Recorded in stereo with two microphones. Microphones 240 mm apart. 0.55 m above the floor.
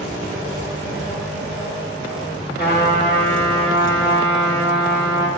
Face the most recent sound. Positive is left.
turn(degrees=40)  # may be behind; listen again after turning